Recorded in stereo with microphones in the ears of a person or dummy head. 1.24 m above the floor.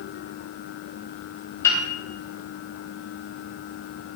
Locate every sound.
1.6 s a piano: 10° left (ahead or behind), 0.5 m